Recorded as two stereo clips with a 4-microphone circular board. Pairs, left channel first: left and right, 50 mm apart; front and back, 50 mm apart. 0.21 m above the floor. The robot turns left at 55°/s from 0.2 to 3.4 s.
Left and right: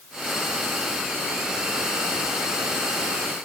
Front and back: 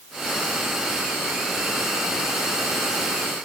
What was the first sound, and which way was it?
Only background noise.